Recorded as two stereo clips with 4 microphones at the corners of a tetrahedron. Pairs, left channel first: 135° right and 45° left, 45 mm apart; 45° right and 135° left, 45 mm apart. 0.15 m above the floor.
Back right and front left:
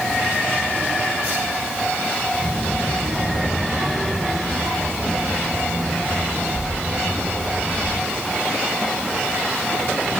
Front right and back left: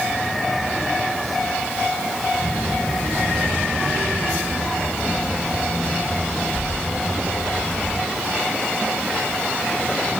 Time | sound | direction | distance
2.4 | a child speaking | 55° left | 8.5 m